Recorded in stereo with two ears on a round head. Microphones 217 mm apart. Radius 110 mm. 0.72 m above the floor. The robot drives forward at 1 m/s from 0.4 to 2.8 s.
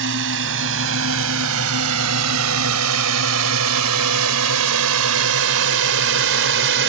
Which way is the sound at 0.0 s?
50° right (ahead or behind).